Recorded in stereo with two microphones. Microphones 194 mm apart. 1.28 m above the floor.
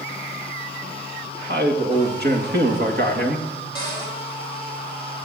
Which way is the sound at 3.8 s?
20° left (ahead or behind).